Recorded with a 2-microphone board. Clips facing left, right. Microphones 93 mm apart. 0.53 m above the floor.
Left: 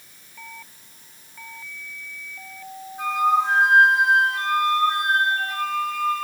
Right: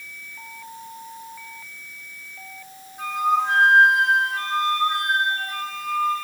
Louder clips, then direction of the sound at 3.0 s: Left 2 dB; 5° left (ahead or behind).